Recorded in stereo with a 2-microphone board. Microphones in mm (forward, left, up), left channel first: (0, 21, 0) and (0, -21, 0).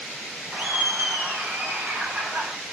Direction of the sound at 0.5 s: 40° right (ahead or behind).